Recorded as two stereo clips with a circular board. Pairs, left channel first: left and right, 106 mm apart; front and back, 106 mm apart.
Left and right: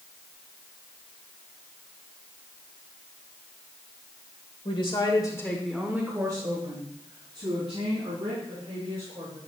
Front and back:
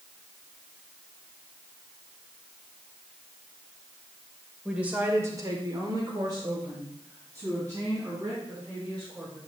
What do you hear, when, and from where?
4.7 s a woman speaking: 100° left, 1.8 m; by 9.4 s 115° right, 6 m